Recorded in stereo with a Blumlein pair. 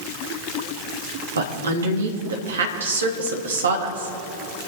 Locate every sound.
1.4 s a woman speaking: 70° right, 2.5 m